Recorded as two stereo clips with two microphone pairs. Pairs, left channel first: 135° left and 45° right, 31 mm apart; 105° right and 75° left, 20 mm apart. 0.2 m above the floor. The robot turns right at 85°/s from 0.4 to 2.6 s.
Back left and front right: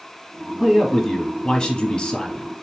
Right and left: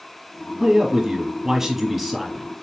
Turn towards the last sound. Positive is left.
turn(degrees=-155)